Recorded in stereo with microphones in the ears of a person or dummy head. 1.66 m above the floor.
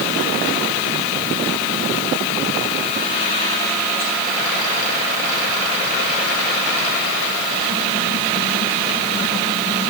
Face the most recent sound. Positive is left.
No sound to turn to.